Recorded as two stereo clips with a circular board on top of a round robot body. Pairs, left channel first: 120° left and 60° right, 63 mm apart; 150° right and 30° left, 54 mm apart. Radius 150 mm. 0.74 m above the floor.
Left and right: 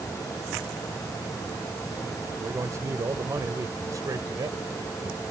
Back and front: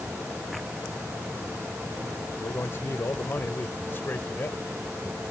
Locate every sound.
2.4 s a man speaking: 105° right; by 5.2 s 90° right